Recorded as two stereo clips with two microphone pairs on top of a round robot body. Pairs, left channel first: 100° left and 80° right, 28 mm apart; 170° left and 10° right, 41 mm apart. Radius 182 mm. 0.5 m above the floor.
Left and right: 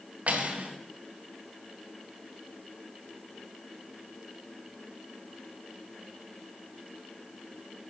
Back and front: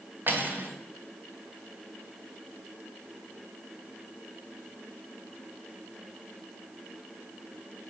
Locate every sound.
0.3 s cutlery clinking: 50° right, 1.3 m